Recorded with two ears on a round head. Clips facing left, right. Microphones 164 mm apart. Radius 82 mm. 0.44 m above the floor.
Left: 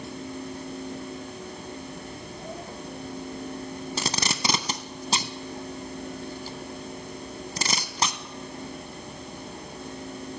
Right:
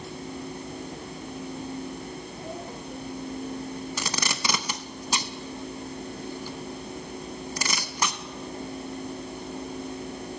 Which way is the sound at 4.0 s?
25° left (ahead or behind).